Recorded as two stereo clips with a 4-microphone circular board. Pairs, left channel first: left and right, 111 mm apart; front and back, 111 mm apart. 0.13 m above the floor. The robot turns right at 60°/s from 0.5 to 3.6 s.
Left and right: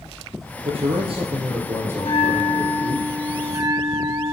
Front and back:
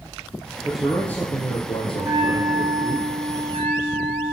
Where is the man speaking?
100° right, 2.5 m; by 3.0 s 40° left, 2.5 m.